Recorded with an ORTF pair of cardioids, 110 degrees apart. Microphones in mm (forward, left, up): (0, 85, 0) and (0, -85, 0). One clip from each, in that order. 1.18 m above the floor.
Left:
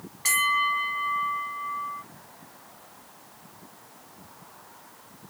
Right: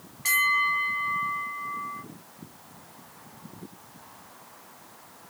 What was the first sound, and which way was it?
A bell, 15° left.